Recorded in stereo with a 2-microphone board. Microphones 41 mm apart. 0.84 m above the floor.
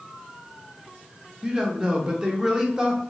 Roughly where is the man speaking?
Centre.